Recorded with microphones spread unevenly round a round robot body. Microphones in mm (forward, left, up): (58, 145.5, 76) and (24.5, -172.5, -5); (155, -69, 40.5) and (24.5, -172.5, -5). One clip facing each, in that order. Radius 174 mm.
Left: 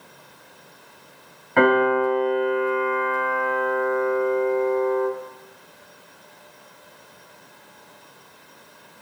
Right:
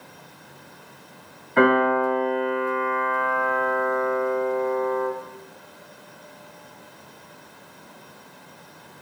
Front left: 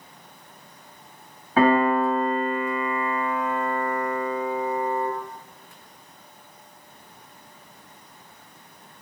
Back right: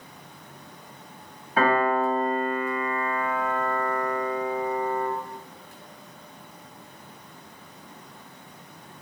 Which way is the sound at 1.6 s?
60° left.